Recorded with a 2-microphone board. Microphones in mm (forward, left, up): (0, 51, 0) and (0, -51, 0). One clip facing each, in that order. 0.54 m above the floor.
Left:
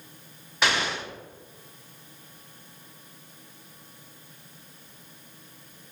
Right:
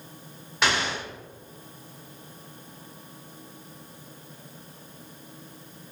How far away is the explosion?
About 1.1 m.